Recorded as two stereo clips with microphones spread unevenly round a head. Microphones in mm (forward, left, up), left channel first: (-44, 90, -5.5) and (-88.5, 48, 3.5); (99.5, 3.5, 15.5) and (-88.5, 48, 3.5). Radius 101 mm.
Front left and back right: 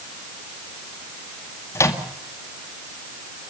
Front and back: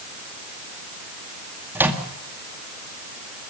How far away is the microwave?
About 2 m.